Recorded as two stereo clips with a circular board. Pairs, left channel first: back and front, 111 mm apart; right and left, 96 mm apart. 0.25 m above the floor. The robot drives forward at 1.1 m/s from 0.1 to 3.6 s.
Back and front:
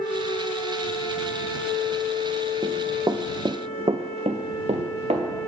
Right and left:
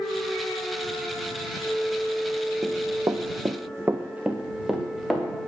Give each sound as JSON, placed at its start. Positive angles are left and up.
{"t": 2.6, "sound": "running footsteps", "azimuth_deg": 45, "distance_m": 0.9}